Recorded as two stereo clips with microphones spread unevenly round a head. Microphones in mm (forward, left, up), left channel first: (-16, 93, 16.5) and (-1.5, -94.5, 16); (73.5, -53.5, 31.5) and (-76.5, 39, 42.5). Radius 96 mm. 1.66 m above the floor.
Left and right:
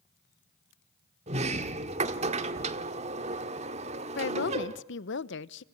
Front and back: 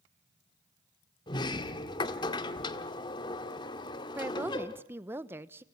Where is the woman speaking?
75° left, 1.0 m.